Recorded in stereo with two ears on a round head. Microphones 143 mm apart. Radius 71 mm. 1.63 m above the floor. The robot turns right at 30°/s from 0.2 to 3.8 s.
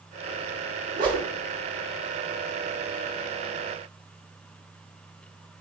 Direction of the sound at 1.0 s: 60° right (ahead or behind).